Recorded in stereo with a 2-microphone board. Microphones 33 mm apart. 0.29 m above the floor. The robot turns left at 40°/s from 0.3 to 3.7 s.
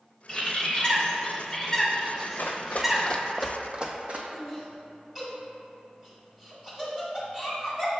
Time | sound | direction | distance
0.3 | a bird | 35° left (ahead or behind) | 0.7 m
2.4 | running footsteps | 65° left (ahead or behind) | 0.6 m
4.3 | laughter | 15° right (ahead or behind) | 1.7 m